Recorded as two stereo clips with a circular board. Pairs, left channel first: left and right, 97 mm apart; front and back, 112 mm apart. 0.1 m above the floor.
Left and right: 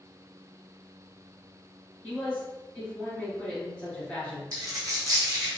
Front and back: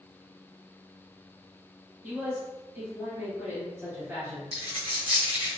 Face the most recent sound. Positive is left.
turn(degrees=-145)